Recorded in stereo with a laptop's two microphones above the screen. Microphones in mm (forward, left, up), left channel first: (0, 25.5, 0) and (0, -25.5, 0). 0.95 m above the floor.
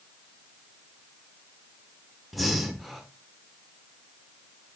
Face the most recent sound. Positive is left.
turn(degrees=0)  # may be behind; listen again after turning